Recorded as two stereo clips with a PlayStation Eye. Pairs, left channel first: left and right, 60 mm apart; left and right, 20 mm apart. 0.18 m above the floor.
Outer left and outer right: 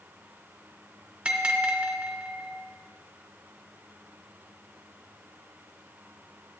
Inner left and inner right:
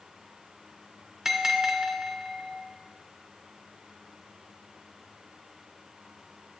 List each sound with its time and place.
1.2 s a bell: 20° right (ahead or behind), 1.1 m